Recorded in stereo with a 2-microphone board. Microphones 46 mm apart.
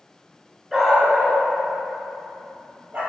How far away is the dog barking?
About 1.7 m.